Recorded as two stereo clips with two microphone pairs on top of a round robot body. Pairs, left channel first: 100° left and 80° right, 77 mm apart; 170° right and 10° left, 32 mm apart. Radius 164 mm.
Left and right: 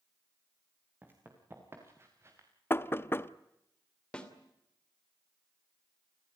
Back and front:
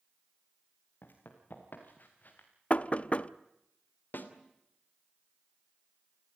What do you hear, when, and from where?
1.0 s running footsteps: 145° right, 5 m; by 2.5 s 135° right, 5 m
2.7 s knocking: 155° left, 1.0 m
4.1 s a snare drum: straight behind, 3 m